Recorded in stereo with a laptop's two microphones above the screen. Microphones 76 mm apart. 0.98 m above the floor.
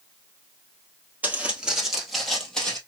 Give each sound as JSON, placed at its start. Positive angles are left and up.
{"t": 1.2, "sound": "footsteps", "side_deg": -20, "distance_m": 1.4}